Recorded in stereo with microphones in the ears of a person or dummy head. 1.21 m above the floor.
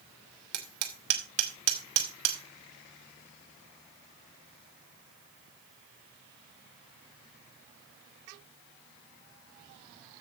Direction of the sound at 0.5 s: 65° right (ahead or behind).